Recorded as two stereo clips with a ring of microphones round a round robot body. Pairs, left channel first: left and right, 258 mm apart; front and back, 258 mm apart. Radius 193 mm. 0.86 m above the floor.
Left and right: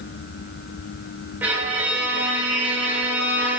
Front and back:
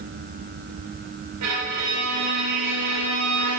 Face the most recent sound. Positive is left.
turn(degrees=-175)